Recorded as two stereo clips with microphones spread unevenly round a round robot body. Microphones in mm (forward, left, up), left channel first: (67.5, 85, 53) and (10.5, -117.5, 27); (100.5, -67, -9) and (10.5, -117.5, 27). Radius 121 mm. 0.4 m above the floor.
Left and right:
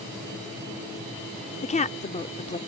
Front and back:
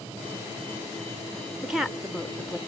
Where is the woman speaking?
80° left.